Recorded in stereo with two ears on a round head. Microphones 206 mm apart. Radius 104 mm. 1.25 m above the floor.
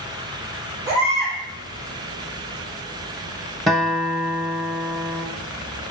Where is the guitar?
Centre (ahead or behind), 0.6 m.